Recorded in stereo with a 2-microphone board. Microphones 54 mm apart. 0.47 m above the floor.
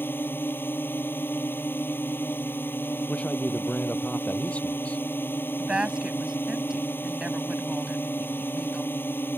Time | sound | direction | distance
0.0 | a drone | 45° left (ahead or behind) | ?
3.1 | a man speaking | 25° left (ahead or behind) | ?
5.6 | a woman speaking | 15° right (ahead or behind) | ?